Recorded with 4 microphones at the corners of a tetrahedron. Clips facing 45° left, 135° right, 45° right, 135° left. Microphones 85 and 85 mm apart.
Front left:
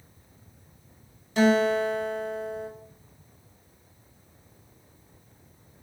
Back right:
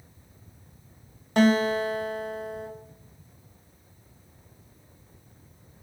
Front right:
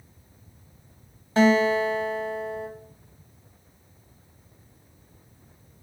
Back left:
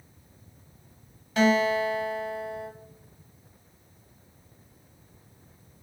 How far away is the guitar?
About 0.5 m.